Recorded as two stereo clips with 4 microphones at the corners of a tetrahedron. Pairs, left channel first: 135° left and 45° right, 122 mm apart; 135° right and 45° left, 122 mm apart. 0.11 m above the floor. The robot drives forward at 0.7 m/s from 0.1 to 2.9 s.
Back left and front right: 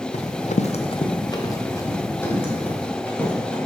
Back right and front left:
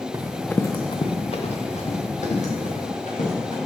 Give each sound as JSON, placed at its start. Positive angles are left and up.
{"t": 0.1, "sound": "running footsteps", "azimuth_deg": 110, "distance_m": 0.6}